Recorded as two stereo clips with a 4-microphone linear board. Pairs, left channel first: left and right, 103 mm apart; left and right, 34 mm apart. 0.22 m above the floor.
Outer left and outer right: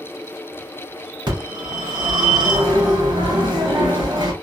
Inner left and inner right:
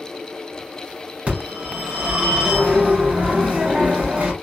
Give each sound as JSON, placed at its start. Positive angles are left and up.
{"t": 1.3, "sound": "a phone ringing", "side_deg": -50, "distance_m": 1.8}